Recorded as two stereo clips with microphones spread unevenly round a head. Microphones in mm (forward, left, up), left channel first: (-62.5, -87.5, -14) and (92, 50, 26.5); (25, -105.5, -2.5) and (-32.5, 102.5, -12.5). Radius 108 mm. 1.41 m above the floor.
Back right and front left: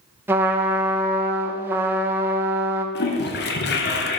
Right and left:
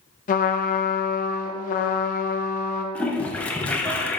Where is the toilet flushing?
150° right, 0.7 m.